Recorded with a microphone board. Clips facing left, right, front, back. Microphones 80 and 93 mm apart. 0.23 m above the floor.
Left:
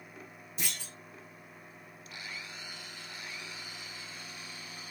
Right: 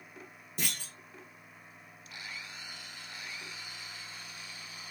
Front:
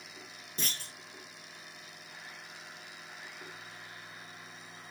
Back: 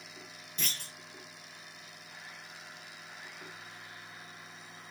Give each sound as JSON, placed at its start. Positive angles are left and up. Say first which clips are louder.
{"t": 0.6, "sound": "a clunk", "louder": "right 2 dB, front 1 dB", "azimuth_deg": -55, "distance_m": 1.5}